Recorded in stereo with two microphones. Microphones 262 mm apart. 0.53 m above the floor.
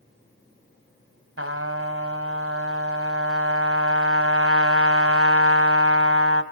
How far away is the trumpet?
About 1.7 m.